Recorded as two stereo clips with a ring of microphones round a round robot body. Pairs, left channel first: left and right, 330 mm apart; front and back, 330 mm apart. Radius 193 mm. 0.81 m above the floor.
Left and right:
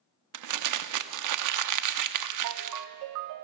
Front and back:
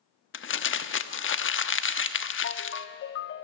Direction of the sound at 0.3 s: 55° right.